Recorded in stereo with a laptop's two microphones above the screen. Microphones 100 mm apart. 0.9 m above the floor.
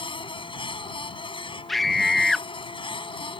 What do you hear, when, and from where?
0.0 s a machine running: 60° left (ahead or behind)
1.7 s a scream: centre (ahead or behind)